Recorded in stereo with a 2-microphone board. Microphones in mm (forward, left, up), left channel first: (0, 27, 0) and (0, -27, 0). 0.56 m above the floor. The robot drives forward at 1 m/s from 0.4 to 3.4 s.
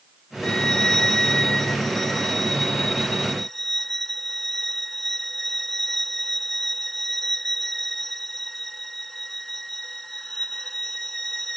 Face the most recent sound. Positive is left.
turn(degrees=5)  # may be behind; listen again after turning